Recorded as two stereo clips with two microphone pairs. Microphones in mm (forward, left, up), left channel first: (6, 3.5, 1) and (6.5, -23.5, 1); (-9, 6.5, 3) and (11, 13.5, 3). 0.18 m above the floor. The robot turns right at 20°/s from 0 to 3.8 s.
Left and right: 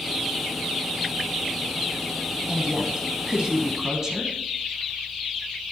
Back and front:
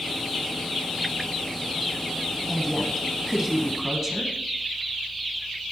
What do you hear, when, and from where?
2.5 s a woman speaking: 80° right, 1.2 m; by 4.3 s 55° right, 1.2 m